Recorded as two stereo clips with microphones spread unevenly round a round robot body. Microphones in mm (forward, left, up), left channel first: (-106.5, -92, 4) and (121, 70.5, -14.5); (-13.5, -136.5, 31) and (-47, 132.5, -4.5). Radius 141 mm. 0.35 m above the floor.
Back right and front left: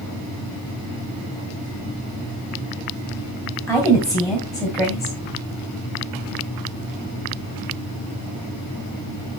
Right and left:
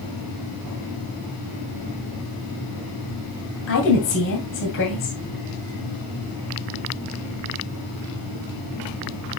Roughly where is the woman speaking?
Ahead right.